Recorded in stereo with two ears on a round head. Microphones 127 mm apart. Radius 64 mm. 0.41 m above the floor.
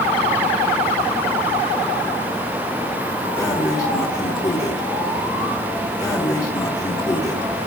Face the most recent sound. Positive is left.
turn(degrees=20)  # may be behind; listen again after turning